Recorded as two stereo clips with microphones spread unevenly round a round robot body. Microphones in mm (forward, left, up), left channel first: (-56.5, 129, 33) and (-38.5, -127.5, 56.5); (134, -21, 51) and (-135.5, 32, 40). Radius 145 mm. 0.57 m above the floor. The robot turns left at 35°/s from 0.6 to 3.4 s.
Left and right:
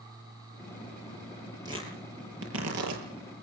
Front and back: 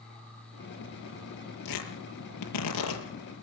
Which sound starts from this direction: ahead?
Tearing paper, at 1.6 s.